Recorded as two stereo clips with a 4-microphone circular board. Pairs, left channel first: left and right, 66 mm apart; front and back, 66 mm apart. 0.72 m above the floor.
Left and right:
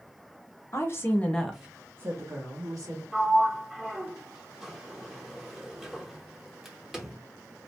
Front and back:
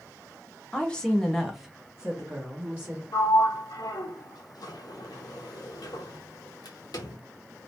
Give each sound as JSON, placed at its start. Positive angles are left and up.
{"t": 0.7, "sound": "a woman speaking", "azimuth_deg": 70, "distance_m": 0.9}
{"t": 3.1, "sound": "a sliding door", "azimuth_deg": -5, "distance_m": 0.6}